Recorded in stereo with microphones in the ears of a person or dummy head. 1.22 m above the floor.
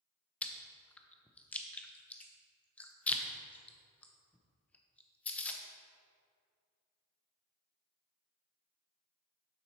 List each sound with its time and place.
0.4 s chewing: 10° left (ahead or behind), 0.7 m